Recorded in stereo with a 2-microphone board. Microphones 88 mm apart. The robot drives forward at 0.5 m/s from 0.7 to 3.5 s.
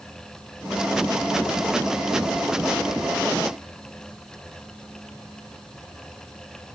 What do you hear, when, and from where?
Only background noise.